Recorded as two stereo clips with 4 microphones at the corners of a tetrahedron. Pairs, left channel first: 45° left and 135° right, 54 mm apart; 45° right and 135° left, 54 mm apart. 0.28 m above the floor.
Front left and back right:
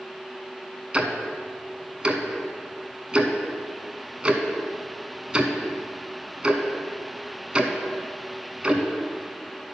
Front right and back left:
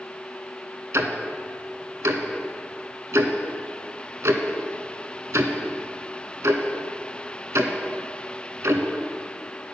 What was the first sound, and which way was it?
Ticking, 155° left.